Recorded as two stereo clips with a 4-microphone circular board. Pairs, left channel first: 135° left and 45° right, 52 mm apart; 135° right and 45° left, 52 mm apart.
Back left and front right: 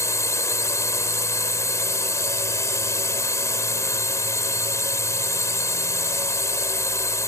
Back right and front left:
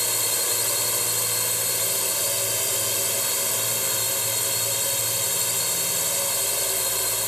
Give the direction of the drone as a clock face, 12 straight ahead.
7 o'clock.